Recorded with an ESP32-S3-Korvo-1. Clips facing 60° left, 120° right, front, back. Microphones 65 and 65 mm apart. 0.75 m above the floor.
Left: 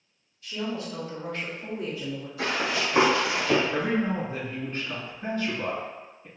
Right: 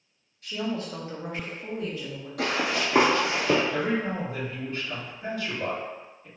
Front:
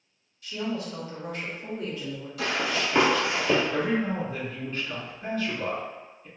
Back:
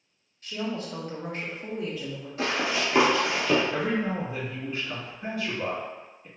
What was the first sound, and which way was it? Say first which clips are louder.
A woman speaking: right 1 dB, front 1 dB; 135° right.